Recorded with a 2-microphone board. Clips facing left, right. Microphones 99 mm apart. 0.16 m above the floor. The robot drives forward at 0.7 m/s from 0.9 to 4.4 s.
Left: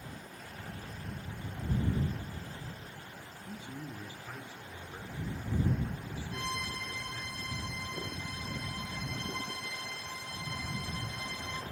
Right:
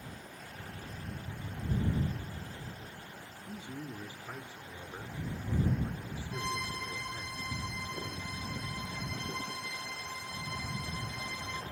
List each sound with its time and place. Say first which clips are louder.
3.5 s a man speaking: right 1 dB; 20° right (ahead or behind), 1.2 m; by 7.3 s 15° right (ahead or behind), 1.5 m
6.3 s a violin: right 2 dB; 65° left (ahead or behind), 1.1 m